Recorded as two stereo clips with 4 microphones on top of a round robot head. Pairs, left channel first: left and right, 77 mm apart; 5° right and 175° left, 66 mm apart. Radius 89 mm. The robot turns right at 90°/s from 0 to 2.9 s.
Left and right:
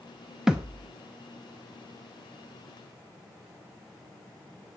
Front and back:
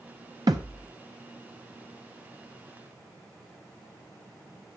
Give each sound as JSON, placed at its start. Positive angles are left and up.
{"t": 0.5, "sound": "a thud", "azimuth_deg": -170, "distance_m": 0.7}